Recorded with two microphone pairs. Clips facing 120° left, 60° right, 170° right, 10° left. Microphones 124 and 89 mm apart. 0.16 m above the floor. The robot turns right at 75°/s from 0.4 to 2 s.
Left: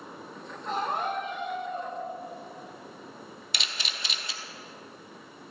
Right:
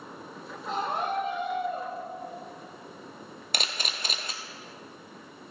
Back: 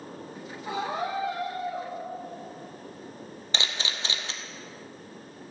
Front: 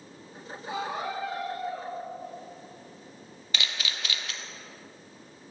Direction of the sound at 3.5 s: 110° right.